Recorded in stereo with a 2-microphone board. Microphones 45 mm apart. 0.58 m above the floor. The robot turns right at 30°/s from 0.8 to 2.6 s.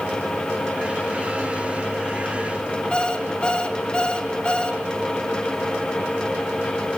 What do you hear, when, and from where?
2.9 s an alarm clock: 20° left (ahead or behind), 1.2 m